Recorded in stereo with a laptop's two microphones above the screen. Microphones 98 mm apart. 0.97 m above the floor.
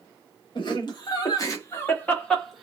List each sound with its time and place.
0.6 s laughter: 50° left (ahead or behind), 1.3 m; by 2.6 s 5° right (ahead or behind), 0.8 m